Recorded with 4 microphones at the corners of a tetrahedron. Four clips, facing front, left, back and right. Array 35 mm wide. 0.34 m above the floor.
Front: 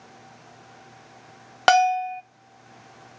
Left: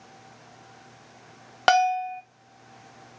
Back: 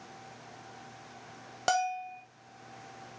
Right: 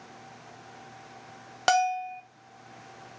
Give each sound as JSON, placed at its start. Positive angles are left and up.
{"t": 1.7, "sound": "a bell", "azimuth_deg": 30, "distance_m": 0.6}